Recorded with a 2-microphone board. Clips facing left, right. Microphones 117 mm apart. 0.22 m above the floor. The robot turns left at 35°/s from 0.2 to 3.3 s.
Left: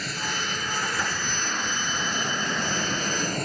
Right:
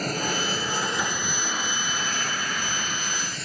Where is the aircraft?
45° right (ahead or behind); by 3.5 s 50° left (ahead or behind).